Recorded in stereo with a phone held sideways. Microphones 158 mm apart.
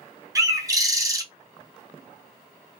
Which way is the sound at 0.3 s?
20° right (ahead or behind).